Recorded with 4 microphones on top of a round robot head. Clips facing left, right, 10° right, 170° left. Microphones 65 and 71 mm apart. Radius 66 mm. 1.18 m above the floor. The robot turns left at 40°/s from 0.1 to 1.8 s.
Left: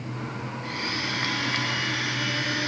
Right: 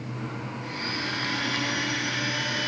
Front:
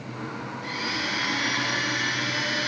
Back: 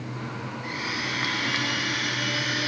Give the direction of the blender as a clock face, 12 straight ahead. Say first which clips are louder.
Left 2 dB, front 1 dB; 1 o'clock.